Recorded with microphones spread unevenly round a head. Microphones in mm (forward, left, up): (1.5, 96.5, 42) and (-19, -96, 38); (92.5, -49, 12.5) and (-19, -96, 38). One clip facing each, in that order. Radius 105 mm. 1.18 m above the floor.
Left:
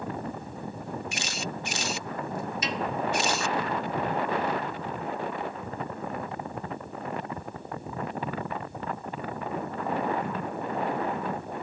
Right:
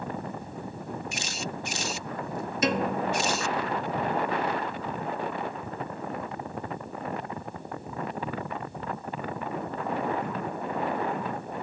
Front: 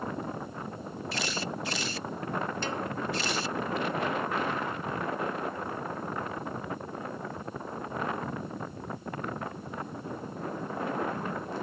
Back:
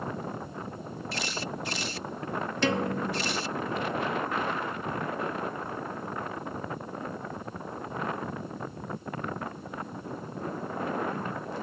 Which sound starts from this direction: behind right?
A piano, at 2.6 s.